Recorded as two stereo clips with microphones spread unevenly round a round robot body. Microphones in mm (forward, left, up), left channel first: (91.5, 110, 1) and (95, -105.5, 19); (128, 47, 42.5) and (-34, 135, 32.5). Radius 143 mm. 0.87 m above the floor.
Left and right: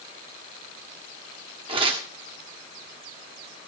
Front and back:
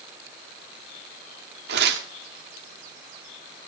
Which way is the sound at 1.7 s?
165° right.